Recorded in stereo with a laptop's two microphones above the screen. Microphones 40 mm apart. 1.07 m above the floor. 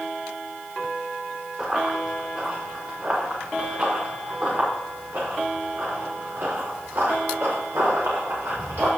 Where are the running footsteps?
20° right (ahead or behind), 6 m; by 8.9 s 75° right (ahead or behind), 8 m.